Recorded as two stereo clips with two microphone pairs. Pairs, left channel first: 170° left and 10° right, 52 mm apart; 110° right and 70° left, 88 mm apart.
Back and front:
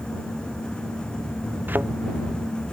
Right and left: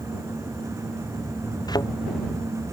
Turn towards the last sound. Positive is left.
turn(degrees=-65)